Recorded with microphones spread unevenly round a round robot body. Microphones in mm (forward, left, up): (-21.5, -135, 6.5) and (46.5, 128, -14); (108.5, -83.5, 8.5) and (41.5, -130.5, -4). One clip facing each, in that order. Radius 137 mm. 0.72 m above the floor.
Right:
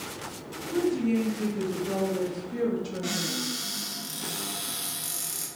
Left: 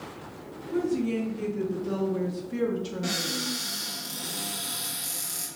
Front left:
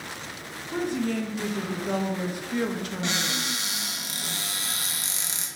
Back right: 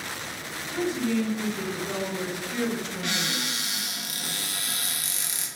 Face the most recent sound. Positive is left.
turn(degrees=-20)